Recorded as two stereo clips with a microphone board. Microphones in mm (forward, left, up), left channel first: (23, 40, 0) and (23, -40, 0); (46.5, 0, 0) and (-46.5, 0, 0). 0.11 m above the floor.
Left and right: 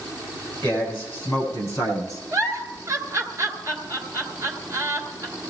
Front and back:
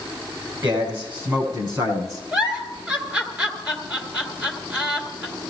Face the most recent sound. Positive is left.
turn(degrees=-110)